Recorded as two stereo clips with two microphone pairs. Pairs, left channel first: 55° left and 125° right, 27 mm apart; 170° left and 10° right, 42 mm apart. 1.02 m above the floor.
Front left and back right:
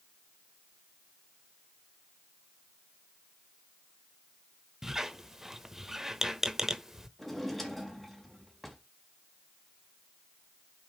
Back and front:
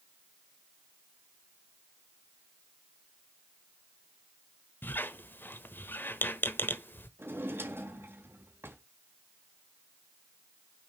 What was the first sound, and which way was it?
A squeak, 160° left.